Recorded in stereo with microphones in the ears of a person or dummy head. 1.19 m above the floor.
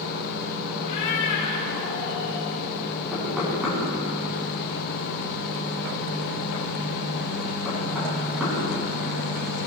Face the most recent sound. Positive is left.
turn(degrees=-5)  # may be behind; listen again after turning